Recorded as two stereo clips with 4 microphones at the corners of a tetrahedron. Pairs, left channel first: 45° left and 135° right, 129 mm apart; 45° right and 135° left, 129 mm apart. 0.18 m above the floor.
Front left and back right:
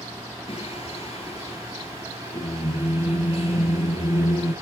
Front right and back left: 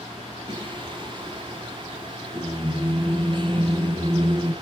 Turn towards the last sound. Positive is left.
turn(degrees=85)